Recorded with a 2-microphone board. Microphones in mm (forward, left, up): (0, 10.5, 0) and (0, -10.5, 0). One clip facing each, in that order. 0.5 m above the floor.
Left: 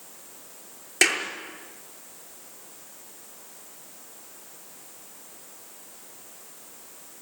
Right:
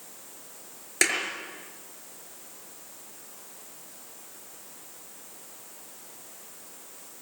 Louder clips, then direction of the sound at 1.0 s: Left 4 dB; 5° left (ahead or behind).